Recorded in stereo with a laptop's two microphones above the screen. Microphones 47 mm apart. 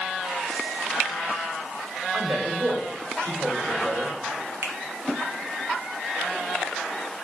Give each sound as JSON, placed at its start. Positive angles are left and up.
{"t": 2.1, "sound": "a man speaking", "side_deg": -65, "distance_m": 3.0}
{"t": 4.6, "sound": "a finger snap", "side_deg": -65, "distance_m": 1.0}